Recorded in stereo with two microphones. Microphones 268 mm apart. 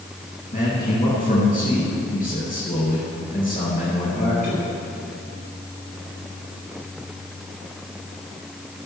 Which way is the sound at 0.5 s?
30° left (ahead or behind).